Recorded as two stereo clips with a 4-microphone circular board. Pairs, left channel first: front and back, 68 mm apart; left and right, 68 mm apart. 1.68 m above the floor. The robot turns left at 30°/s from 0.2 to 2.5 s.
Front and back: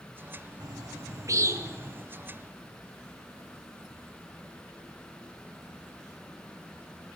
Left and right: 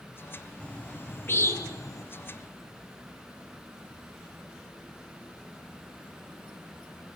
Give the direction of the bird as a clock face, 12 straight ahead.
7 o'clock.